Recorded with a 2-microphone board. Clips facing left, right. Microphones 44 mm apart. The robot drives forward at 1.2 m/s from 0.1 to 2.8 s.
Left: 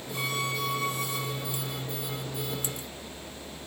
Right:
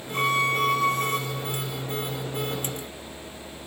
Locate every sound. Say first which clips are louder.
0.1 s a violin: right 9 dB; 35° right (ahead or behind), 1.6 m; by 1.2 s 55° right (ahead or behind), 1.2 m